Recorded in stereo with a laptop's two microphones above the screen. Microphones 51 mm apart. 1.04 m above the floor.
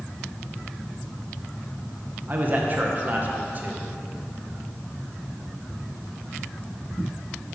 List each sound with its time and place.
2.3 s a man speaking: 35° right (ahead or behind), 0.9 m